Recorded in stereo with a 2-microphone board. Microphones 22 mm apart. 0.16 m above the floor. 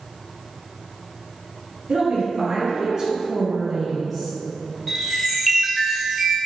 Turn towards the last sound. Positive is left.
turn(degrees=0)  # may be behind; listen again after turning